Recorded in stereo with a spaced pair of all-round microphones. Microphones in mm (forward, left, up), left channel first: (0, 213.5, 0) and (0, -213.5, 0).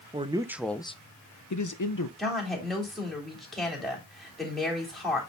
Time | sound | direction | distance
0.1 | a man speaking | 15° right (ahead or behind) | 1.0 m
2.2 | a woman speaking | centre (ahead or behind) | 3.5 m